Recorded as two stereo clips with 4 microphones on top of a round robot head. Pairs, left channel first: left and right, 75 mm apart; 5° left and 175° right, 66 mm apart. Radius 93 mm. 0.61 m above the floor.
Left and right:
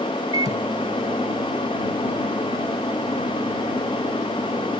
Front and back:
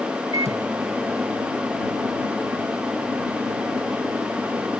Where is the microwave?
135° right.